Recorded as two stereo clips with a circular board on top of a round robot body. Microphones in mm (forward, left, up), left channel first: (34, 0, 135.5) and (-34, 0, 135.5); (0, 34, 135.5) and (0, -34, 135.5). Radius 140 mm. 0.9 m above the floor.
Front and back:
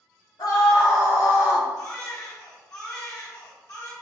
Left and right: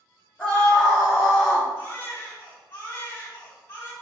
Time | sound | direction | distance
0.4 | a scream | 10° left | 3 m
1.8 | a baby crying | 35° left | 3.5 m